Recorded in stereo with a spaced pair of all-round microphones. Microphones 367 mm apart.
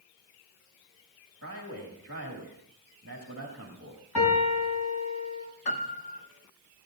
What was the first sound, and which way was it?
A man speaking, 40° right (ahead or behind).